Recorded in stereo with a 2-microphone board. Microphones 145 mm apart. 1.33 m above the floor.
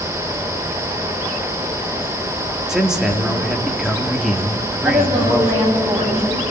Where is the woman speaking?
40° right (ahead or behind), 9.5 m.